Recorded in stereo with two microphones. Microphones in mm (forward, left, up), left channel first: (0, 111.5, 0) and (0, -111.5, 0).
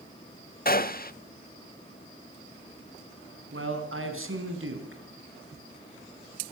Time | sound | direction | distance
0.7 | a gunshot | 40° left (ahead or behind) | 0.6 m
3.5 | a man speaking | 70° right (ahead or behind) | 4 m